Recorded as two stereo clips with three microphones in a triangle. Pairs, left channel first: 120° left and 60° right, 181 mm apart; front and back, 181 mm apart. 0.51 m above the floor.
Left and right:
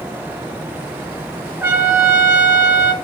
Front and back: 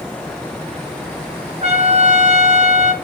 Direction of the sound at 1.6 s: 130° right.